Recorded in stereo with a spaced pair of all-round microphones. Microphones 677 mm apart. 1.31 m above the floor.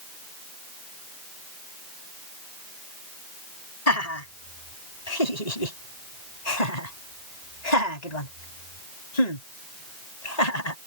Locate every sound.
3.9 s laughter: 65° left (ahead or behind); by 10.8 s 75° left (ahead or behind)